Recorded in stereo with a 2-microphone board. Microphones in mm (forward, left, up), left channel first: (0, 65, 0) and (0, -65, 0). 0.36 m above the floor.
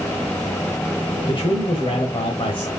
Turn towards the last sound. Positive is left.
turn(degrees=40)  # may be behind; listen again after turning